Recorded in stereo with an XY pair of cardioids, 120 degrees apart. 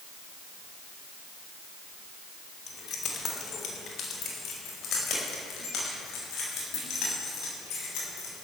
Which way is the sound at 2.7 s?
45° left.